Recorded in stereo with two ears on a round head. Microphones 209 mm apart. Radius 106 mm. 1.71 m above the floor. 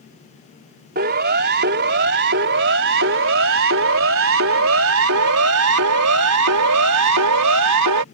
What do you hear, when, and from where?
0.9 s a siren: 40° right (ahead or behind); by 8.1 s 80° right